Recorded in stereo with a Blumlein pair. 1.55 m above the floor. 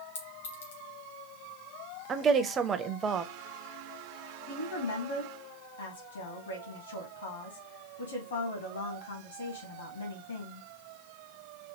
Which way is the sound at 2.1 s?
20° right.